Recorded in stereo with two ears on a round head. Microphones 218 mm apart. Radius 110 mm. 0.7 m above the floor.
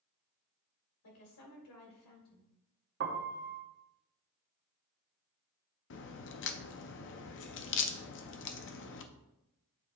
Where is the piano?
45° right (ahead or behind), 0.8 m.